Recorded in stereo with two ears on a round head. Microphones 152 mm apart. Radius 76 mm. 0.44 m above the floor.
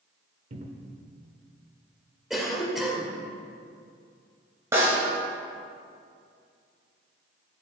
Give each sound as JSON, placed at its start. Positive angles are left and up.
{"t": 0.5, "sound": "a cupboard door", "side_deg": -45, "distance_m": 0.9}
{"t": 2.3, "sound": "a cough", "side_deg": 0, "distance_m": 1.9}
{"t": 4.7, "sound": "a snare drum", "side_deg": -20, "distance_m": 3.5}